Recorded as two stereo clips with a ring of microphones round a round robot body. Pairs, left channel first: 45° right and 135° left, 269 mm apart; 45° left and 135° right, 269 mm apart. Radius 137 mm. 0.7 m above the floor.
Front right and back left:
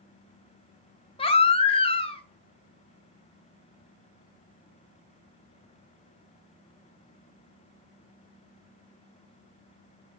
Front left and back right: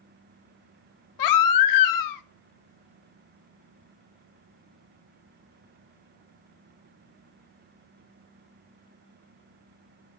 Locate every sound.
1.2 s a baby crying: 25° left, 0.7 m